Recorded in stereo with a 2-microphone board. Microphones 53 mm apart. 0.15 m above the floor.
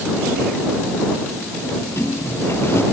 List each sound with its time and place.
1.6 s a sliding door: 50° left (ahead or behind)